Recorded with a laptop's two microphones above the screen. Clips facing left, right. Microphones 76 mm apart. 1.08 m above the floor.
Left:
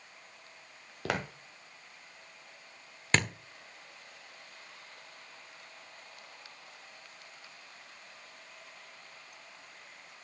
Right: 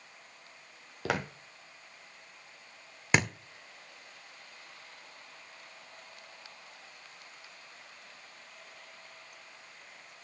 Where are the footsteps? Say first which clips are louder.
Right 1 dB; centre (ahead or behind), 1.4 m.